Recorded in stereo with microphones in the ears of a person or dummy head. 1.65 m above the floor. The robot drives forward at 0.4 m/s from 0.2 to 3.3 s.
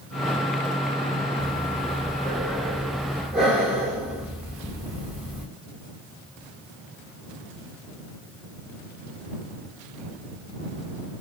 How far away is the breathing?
About 5 m.